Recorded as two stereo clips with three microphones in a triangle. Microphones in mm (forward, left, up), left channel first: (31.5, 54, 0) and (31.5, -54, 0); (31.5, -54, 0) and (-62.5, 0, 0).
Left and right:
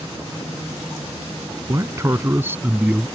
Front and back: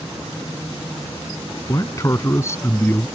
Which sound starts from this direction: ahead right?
A man speaking, at 1.7 s.